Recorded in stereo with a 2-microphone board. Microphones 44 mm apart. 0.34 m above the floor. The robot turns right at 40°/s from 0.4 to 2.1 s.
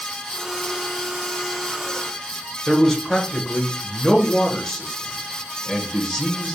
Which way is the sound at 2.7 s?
15° left (ahead or behind).